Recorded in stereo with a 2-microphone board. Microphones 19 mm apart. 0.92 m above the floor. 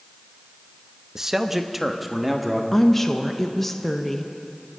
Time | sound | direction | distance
1.1 | a man speaking | 20° right (ahead or behind) | 0.8 m
2.7 | a woman speaking | 15° left (ahead or behind) | 0.9 m